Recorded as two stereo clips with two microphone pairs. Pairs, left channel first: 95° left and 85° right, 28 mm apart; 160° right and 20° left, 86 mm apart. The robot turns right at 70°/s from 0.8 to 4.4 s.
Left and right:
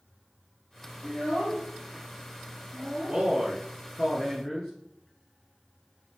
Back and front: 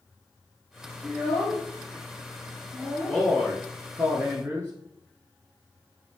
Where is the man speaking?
85° right, 1.2 m; by 4.7 s 5° left, 1.2 m.